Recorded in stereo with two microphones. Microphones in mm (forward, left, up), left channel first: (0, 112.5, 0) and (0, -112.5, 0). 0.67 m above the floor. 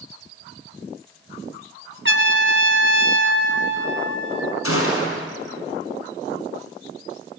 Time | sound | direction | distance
2.0 | a trumpet | 55° right (ahead or behind) | 1.7 m
4.6 | a gunshot | 80° left | 6 m